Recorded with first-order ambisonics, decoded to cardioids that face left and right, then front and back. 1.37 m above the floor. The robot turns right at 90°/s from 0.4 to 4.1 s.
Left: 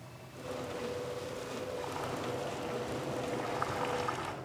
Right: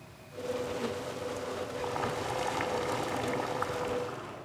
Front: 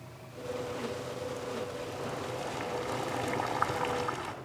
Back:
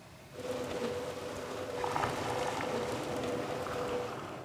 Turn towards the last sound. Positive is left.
turn(degrees=45)